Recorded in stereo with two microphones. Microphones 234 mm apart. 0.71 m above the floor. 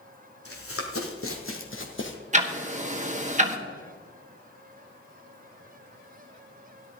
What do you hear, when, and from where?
0.5 s running footsteps: 70° left (ahead or behind), 2.5 m; by 2.2 s 55° left (ahead or behind), 1.8 m
2.3 s ticking: 30° right (ahead or behind), 1.3 m